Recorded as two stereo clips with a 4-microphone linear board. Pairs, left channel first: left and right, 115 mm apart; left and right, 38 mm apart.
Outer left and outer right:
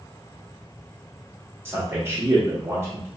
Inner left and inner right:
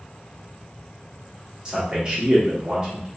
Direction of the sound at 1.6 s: 20° right (ahead or behind).